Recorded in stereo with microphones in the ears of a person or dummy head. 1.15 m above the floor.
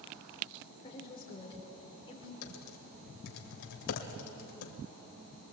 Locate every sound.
0.8 s a woman speaking: 25° left (ahead or behind), 3.5 m
2.4 s typing on a keyboard: 65° left (ahead or behind), 2 m